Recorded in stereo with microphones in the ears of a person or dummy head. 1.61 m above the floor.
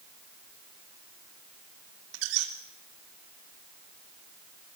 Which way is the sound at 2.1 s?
75° right (ahead or behind).